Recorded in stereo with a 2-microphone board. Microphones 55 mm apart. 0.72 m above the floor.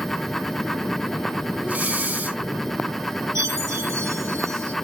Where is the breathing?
30° right (ahead or behind), 1.0 m.